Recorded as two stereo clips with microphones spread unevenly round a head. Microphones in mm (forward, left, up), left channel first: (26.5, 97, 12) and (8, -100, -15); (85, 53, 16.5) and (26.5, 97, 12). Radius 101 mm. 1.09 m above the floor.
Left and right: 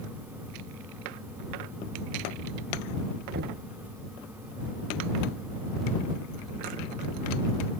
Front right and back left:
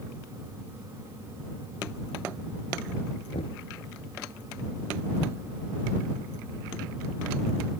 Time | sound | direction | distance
3.3 | knocking | 50° right | ?